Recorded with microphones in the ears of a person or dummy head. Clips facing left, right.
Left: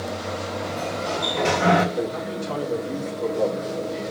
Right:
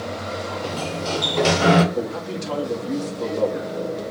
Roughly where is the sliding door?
Right.